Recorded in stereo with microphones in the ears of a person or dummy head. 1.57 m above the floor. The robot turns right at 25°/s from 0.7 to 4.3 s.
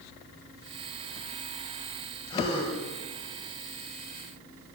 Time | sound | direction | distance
2.3 | a gasp | 25° left (ahead or behind) | 7 m